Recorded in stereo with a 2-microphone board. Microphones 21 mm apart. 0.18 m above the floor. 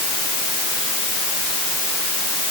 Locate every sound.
Only background noise.